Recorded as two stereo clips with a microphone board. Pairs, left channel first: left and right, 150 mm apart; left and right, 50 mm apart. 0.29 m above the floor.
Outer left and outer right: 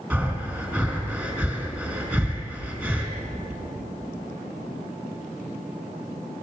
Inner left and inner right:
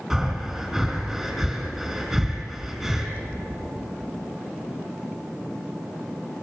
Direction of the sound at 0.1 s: 15° right (ahead or behind).